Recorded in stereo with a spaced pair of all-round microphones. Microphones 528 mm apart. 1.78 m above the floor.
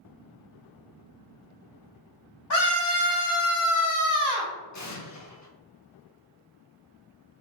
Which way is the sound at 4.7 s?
35° left (ahead or behind).